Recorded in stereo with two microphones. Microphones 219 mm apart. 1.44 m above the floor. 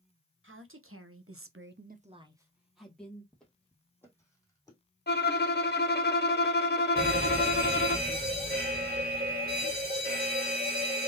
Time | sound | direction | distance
0.4 | a woman speaking | 65° right (ahead or behind) | 1.6 m
3.3 | footsteps | centre (ahead or behind) | 2.0 m
5.1 | a violin | 50° left (ahead or behind) | 0.7 m
7.0 | a fire alarm | 45° right (ahead or behind) | 2.5 m